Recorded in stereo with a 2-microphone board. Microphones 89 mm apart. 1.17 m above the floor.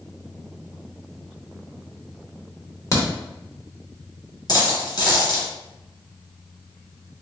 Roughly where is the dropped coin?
Left.